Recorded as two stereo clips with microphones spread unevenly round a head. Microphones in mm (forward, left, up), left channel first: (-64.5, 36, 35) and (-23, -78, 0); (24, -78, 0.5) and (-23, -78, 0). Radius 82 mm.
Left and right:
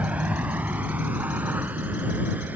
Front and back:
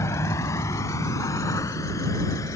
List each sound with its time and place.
0.0 s a vehicle: 20° left; by 2.6 s 15° left